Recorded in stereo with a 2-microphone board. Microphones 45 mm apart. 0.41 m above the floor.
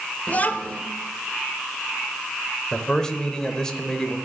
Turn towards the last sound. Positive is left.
turn(degrees=15)  # may be behind; listen again after turning